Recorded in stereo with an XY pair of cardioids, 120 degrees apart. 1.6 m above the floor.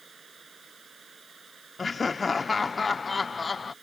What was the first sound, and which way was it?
Running water, 25° right.